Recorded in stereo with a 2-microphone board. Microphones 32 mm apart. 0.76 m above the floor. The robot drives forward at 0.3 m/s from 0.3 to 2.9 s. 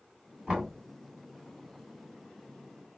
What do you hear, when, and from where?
0.5 s knocking: 20° right (ahead or behind), 2.5 m